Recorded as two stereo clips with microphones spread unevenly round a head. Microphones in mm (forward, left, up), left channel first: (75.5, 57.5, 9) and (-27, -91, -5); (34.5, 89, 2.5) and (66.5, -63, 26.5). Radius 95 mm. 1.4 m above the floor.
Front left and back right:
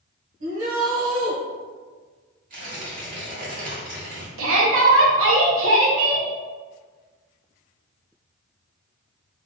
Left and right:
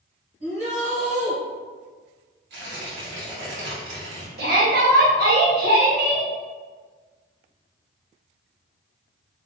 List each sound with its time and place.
0.4 s a shout: 135° right, 1.9 m
2.5 s tearing paper: 85° right, 1.9 m
4.4 s a shout: 120° right, 1.3 m